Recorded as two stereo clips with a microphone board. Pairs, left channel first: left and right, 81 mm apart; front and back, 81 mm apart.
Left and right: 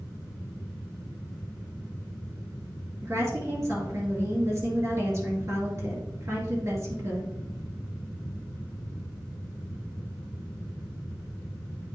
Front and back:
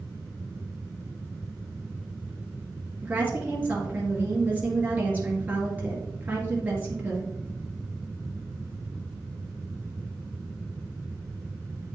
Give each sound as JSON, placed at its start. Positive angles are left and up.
{"t": 3.0, "sound": "a woman speaking", "azimuth_deg": -120, "distance_m": 2.0}